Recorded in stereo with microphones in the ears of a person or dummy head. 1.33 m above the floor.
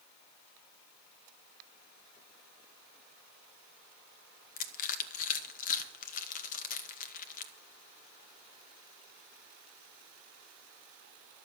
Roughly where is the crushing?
Left.